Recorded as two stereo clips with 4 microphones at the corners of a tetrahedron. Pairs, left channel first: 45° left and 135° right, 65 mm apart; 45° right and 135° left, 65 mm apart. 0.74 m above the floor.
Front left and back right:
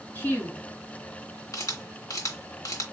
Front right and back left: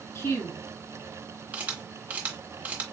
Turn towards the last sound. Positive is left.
turn(degrees=70)